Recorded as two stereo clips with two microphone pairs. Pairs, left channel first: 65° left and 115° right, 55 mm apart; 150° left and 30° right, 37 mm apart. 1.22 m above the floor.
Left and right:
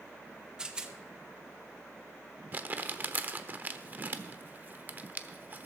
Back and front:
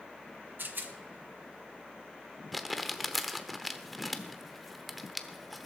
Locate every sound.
0.6 s a rattle: 45° right, 1.1 m
2.5 s crumpling: 115° right, 1.0 m